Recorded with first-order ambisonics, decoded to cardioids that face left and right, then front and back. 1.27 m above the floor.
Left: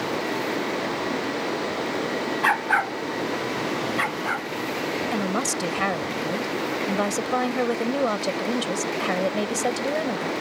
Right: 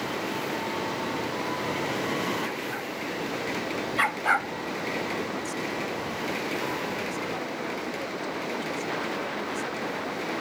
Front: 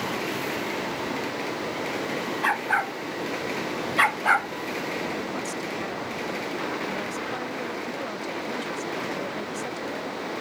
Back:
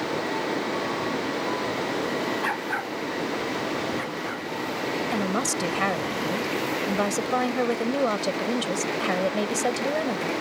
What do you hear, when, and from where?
2.4 s a dog barking: 75° left; by 4.5 s 25° right
5.1 s a woman speaking: 130° left